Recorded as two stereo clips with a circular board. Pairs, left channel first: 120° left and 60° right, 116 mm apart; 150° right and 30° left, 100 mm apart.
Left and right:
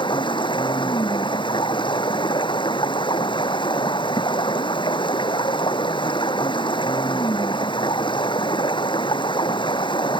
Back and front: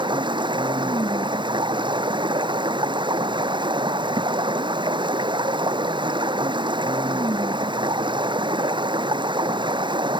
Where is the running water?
70° left.